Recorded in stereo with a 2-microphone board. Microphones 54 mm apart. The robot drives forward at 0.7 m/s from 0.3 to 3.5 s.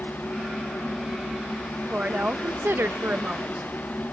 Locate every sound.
1.8 s a woman speaking: 25° right (ahead or behind), 0.8 m; by 3.7 s 30° right (ahead or behind), 0.7 m